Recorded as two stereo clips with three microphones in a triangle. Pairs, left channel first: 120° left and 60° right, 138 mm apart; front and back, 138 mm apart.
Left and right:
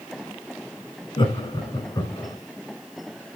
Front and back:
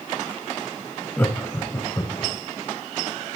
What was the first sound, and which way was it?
Laughter, 75° left.